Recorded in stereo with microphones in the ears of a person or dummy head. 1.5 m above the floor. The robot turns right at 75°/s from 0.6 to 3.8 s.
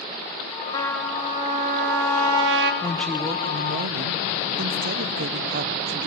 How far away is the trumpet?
About 2 m.